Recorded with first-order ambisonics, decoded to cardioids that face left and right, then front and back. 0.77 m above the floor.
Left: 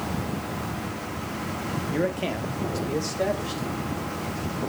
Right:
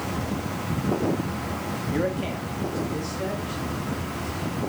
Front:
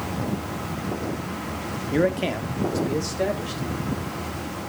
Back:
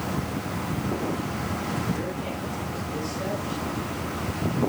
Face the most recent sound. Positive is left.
turn(degrees=40)